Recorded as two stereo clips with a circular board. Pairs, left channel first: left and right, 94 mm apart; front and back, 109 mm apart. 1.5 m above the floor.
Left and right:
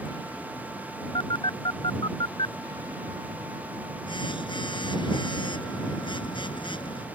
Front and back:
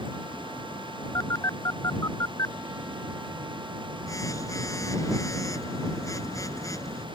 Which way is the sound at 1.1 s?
60° left.